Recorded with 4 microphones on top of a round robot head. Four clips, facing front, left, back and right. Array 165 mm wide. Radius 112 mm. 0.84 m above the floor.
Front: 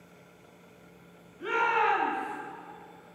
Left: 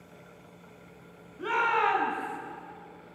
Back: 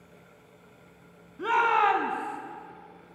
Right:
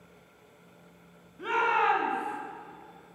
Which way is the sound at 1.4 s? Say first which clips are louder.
Even, back 4 dB; straight behind.